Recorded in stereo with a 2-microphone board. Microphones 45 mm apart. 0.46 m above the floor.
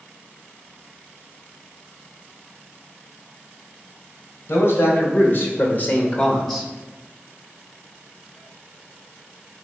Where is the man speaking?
65° left (ahead or behind), 3 m; by 6.7 s 5° left (ahead or behind), 1.8 m.